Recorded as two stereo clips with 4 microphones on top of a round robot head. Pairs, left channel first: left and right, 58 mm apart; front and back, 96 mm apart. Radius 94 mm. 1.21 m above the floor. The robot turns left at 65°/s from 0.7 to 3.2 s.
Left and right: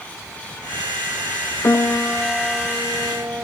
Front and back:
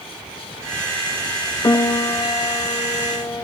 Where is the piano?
50° left, 0.7 m; by 3.5 s 50° right, 0.7 m.